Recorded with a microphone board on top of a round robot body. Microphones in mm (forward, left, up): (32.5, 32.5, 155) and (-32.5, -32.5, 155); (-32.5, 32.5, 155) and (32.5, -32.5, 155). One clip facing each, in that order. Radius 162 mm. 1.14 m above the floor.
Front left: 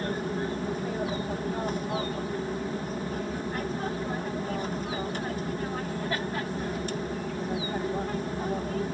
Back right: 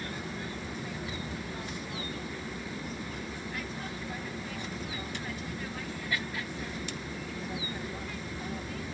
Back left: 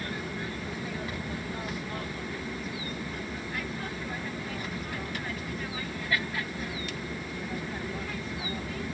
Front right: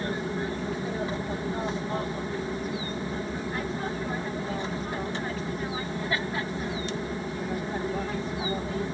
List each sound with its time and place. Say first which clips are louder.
0.0 s an aircraft: front left 8 dB, front right 6 dB; 10° left